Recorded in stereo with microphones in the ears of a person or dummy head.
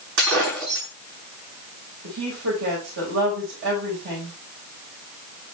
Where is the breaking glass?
60° right (ahead or behind), 8.5 m.